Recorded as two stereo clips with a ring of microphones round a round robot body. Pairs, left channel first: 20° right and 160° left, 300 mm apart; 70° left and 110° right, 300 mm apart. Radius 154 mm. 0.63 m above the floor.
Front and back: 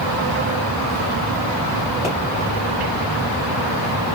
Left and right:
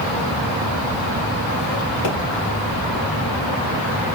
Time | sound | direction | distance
2.0 | a pop | 45° left | 2.5 m